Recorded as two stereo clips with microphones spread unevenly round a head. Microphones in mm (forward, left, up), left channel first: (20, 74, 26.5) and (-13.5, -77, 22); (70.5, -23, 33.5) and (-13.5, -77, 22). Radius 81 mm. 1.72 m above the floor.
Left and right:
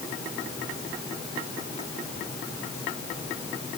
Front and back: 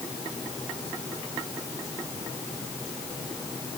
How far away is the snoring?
No snoring in this recording.